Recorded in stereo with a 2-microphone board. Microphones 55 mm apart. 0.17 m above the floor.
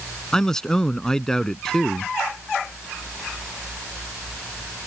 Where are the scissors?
I don't hear scissors.